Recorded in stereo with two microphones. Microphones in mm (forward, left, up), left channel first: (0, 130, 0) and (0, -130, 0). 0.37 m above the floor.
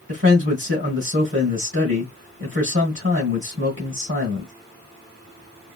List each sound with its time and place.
0.1 s a man speaking: 50° right (ahead or behind), 2.0 m